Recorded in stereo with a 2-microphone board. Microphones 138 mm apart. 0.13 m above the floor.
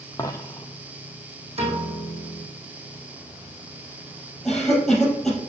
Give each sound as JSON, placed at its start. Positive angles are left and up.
{"t": 0.2, "sound": "a dropped coin", "side_deg": 20, "distance_m": 0.7}
{"t": 1.6, "sound": "a piano", "side_deg": -50, "distance_m": 3.0}
{"t": 4.5, "sound": "a cough", "side_deg": 0, "distance_m": 3.5}